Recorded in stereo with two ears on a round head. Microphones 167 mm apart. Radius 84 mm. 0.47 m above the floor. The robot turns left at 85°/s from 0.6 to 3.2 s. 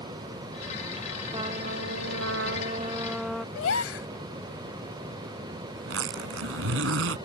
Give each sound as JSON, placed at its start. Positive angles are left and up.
{"t": 1.3, "sound": "a trumpet", "azimuth_deg": -20}
{"t": 3.5, "sound": "a gasp", "side_deg": 80}
{"t": 5.8, "sound": "a zipper", "side_deg": -80}